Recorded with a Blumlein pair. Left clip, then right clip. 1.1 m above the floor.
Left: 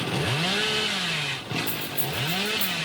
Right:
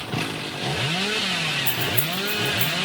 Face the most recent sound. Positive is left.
turn(degrees=-20)